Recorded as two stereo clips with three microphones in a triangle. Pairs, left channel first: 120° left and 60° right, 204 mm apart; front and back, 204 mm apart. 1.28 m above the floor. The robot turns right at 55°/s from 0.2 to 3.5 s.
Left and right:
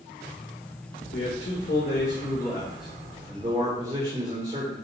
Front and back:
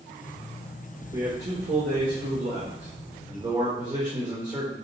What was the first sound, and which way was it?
A man speaking, 120° left.